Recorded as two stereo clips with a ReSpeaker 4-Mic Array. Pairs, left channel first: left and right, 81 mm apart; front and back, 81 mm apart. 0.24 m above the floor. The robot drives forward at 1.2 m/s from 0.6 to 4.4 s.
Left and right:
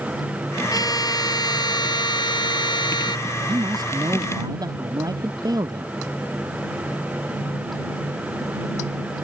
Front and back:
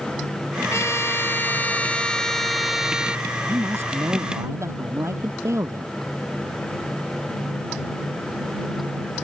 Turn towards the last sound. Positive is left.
turn(degrees=-125)